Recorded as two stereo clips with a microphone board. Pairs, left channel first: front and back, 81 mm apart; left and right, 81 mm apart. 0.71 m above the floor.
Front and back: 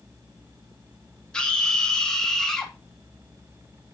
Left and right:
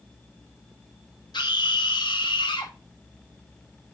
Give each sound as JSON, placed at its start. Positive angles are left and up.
{"t": 1.3, "sound": "a scream", "azimuth_deg": 75, "distance_m": 2.5}